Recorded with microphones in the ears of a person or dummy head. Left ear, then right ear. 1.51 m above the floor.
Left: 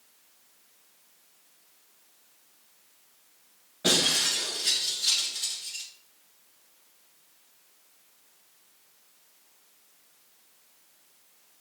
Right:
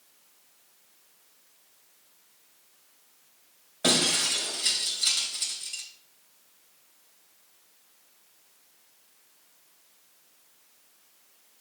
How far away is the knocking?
I don't hear knocking.